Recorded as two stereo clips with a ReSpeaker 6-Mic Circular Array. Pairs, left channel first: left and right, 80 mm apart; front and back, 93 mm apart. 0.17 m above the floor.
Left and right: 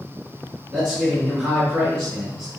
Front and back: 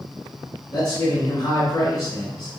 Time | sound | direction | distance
0.7 | a man speaking | 15° left | 1.8 m